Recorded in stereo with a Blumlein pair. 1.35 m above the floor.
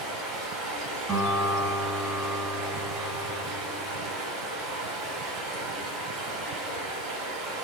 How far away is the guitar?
About 1.3 m.